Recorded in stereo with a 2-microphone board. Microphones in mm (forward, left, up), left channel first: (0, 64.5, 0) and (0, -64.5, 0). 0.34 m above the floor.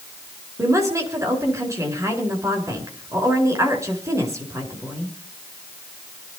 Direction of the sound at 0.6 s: 25° right (ahead or behind).